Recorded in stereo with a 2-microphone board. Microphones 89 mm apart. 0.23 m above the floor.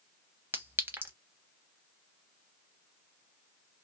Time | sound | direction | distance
0.5 | a clink | 25° right (ahead or behind) | 0.6 m